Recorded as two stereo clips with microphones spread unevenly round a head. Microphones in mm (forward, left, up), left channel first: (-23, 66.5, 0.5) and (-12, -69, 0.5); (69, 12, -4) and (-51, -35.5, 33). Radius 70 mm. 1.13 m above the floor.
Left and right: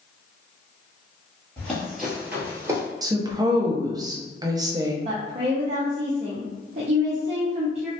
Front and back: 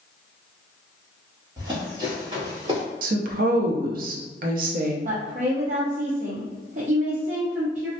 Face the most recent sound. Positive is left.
turn(degrees=-120)